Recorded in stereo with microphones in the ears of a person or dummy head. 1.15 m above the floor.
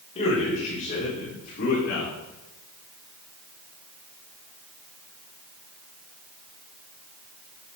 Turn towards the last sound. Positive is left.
turn(degrees=65)  # may be behind; listen again after turning